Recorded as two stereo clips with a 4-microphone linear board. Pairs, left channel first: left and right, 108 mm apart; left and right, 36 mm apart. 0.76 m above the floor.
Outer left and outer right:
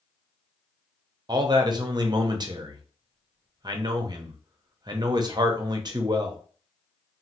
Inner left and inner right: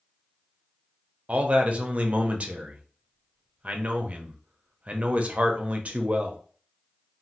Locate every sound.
1.3 s a man speaking: 40° right (ahead or behind), 0.5 m